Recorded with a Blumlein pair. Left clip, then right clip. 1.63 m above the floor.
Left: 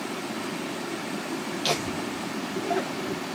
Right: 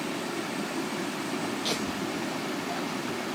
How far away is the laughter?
About 0.8 m.